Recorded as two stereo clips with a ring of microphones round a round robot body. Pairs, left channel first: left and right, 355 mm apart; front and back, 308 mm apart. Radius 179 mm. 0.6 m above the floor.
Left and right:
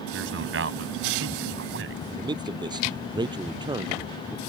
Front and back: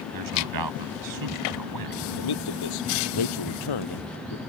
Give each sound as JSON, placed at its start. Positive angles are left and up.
{"t": 0.1, "sound": "a man speaking", "azimuth_deg": -145}
{"t": 2.1, "sound": "a man speaking", "azimuth_deg": -10}